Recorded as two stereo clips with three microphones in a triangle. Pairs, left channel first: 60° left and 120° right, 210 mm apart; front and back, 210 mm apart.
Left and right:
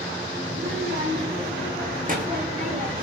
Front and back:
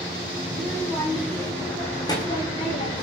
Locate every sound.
0.5 s a child speaking: 85° right, 7 m; by 3.0 s 55° right, 4.5 m